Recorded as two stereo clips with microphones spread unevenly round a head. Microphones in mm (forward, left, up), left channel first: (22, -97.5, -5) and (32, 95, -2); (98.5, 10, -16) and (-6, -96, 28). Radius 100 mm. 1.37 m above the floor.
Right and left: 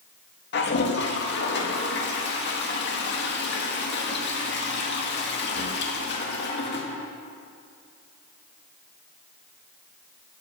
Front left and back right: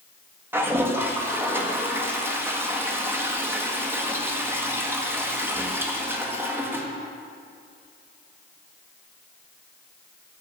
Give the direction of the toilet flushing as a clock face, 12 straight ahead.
2 o'clock.